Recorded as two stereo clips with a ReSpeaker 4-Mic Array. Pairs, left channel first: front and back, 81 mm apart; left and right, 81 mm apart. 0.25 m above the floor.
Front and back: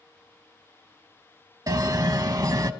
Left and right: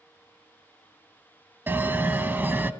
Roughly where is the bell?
Behind right.